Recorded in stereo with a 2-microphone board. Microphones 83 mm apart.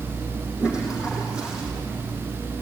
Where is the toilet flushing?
10° right (ahead or behind), 5.5 m.